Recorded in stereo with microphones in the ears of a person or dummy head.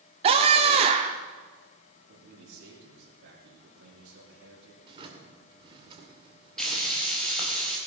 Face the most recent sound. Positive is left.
turn(degrees=5)  # may be behind; listen again after turning